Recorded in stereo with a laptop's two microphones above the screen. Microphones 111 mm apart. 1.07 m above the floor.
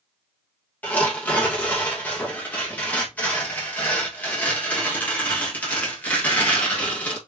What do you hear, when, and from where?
0.8 s tearing paper: 15° left (ahead or behind), 1.5 m